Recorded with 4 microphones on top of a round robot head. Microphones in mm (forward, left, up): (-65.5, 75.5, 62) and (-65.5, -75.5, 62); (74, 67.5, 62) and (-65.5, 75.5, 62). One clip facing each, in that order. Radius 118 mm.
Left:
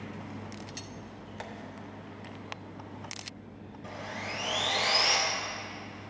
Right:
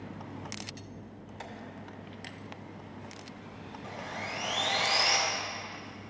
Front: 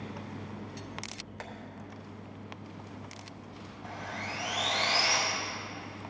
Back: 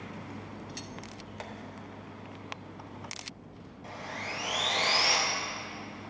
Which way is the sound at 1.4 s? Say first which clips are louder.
Left 2 dB, back 1 dB; 105° left.